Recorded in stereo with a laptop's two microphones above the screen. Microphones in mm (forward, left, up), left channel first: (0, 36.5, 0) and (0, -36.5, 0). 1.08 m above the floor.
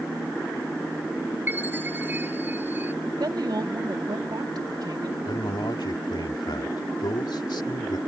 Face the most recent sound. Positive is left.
turn(degrees=80)